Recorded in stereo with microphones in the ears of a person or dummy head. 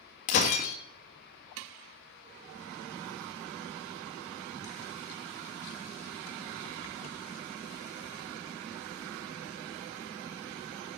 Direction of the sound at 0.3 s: 40° left (ahead or behind).